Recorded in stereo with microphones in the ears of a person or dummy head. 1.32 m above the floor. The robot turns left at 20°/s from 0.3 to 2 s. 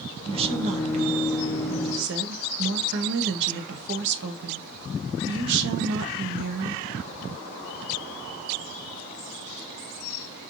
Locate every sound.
0.3 s a woman speaking: 30° right, 0.7 m; by 6.8 s 65° right, 0.7 m